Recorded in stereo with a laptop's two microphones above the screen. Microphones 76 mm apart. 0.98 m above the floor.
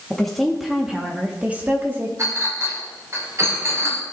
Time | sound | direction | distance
0.1 | a woman speaking | 10° left (ahead or behind) | 1.5 m
2.2 | a clink | 40° right (ahead or behind) | 2.5 m